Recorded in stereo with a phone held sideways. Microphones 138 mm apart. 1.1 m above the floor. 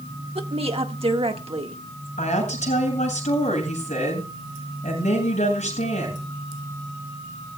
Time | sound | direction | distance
0.3 | a woman speaking | 45° right (ahead or behind) | 1.6 m
2.2 | a woman speaking | 60° left (ahead or behind) | 7.5 m